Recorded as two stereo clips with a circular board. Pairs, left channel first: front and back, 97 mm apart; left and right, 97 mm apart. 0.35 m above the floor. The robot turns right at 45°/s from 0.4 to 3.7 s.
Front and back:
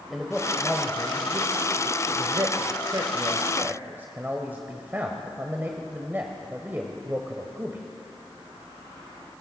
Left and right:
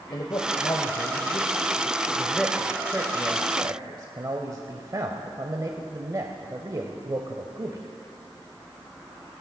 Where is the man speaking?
90° left, 1.2 m; by 7.8 s 120° right, 1.2 m.